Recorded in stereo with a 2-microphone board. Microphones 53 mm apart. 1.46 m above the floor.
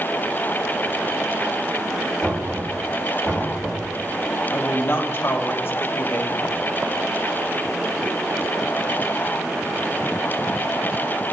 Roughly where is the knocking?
Left.